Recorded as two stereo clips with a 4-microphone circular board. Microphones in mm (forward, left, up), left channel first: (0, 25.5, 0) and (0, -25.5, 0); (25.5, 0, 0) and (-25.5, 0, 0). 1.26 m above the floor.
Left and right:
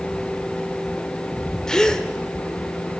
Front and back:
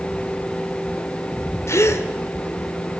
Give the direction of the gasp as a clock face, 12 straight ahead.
12 o'clock.